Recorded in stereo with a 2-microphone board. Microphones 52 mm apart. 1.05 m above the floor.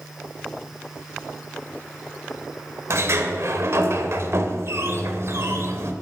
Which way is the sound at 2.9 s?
65° right (ahead or behind).